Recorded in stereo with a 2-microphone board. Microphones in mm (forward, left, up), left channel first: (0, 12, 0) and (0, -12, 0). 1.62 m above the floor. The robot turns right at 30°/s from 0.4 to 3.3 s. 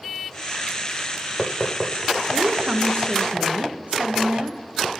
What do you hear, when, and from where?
2.3 s a woman speaking: 30° right (ahead or behind), 1.4 m; by 4.6 s 60° right (ahead or behind), 1.4 m